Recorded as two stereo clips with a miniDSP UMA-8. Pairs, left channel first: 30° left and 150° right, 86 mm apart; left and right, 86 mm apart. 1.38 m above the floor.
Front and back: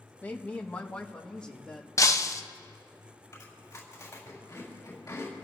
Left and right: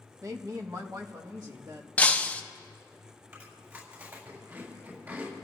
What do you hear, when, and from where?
0.2 s a woman speaking: 40° right, 1.2 m; by 1.9 s 50° right, 2.5 m
2.0 s breaking glass: 30° left, 0.7 m
3.3 s chewing: 30° right, 7 m